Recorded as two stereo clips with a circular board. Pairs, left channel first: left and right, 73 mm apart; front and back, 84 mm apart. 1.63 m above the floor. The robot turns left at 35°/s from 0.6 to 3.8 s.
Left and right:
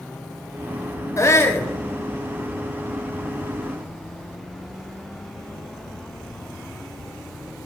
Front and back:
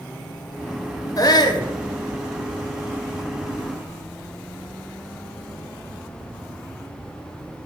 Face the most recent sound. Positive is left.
turn(degrees=-50)